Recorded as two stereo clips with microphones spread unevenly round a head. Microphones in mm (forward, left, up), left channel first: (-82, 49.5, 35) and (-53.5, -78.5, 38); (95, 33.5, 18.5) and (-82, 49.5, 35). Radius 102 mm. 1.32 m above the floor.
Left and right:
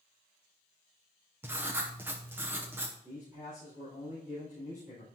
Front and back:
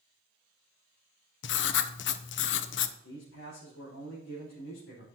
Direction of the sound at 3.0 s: Straight ahead.